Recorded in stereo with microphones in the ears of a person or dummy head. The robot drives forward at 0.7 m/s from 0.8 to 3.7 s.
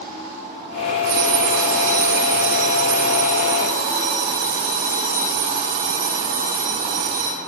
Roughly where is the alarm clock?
Right.